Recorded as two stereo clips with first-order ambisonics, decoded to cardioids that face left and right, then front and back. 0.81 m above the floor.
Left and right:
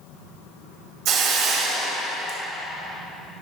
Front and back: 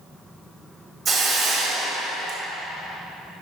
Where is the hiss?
100° right, 1.5 m.